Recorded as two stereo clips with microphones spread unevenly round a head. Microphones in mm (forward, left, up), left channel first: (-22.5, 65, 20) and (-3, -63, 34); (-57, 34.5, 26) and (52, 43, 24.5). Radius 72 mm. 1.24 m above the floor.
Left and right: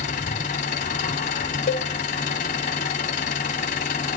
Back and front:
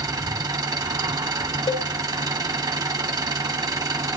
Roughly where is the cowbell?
Behind left.